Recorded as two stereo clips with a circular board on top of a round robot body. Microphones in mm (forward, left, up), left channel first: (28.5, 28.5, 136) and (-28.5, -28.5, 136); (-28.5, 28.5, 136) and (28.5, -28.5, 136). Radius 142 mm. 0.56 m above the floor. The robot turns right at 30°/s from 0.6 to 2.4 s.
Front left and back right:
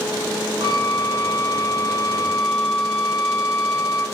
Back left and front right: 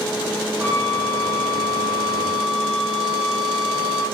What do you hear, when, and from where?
0.6 s a flute: 105° right, 6 m; by 4.0 s 50° right, 6 m